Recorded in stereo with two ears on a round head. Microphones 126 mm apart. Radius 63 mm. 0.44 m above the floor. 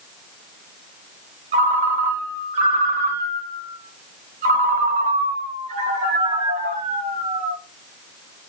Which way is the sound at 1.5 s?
50° right (ahead or behind).